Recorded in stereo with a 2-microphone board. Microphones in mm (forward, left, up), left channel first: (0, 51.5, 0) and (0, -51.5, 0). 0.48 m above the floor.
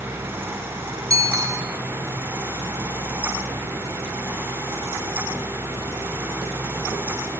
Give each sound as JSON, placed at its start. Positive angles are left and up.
{"t": 1.1, "sound": "a bicycle bell", "side_deg": -35, "distance_m": 5.0}